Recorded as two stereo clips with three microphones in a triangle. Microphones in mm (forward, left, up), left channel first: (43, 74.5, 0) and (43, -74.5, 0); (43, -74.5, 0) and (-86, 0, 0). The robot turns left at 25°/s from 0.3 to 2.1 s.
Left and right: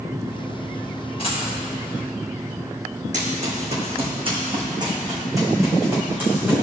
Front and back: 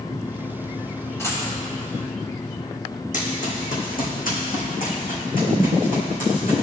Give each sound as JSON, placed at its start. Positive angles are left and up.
{"t": 1.2, "sound": "a dropped coin", "azimuth_deg": 40, "distance_m": 2.5}
{"t": 3.1, "sound": "running footsteps", "azimuth_deg": -55, "distance_m": 2.5}